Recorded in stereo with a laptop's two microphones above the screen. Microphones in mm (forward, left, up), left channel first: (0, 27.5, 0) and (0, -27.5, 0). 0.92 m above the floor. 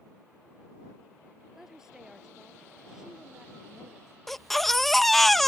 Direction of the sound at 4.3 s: 5° left (ahead or behind).